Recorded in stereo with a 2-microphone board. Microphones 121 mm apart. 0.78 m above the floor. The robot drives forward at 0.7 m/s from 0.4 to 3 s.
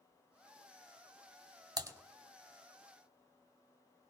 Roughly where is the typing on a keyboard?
Right.